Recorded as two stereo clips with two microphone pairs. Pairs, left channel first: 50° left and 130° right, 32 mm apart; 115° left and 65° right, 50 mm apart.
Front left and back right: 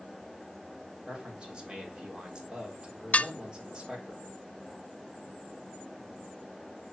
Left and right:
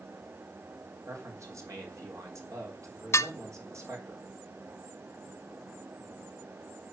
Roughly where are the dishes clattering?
Left.